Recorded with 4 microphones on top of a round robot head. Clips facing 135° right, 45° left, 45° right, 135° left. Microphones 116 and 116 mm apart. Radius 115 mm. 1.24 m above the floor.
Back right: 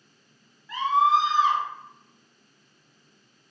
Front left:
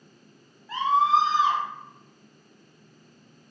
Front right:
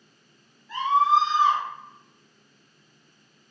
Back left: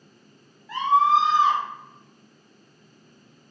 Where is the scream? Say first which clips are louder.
Even, back left 1 dB; 105° left, 1.3 m.